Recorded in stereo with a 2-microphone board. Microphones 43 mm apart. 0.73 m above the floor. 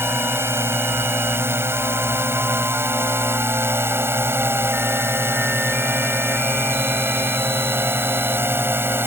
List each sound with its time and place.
0.0 s a drone: 70° right (ahead or behind); by 9.1 s 65° right (ahead or behind)